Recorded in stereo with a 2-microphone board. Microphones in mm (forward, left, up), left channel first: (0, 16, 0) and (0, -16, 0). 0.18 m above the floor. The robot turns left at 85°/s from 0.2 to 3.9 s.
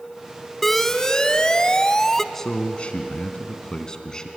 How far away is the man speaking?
About 1.8 m.